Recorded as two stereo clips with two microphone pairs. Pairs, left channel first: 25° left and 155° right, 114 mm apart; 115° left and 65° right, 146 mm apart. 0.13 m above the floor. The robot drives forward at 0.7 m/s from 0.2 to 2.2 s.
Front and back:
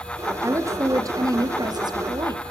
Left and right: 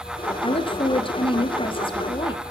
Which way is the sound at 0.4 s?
150° left.